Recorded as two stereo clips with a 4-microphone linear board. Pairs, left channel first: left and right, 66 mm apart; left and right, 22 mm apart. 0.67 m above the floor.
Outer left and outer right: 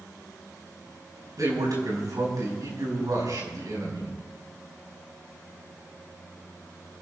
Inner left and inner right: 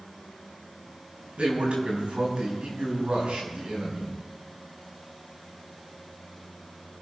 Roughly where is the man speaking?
Right.